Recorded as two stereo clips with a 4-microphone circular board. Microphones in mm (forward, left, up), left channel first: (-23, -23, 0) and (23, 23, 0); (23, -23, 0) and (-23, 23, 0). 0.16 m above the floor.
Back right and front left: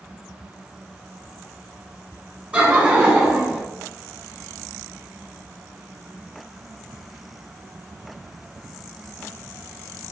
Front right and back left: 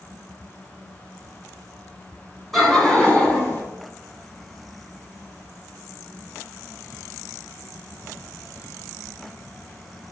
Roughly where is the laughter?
Ahead left.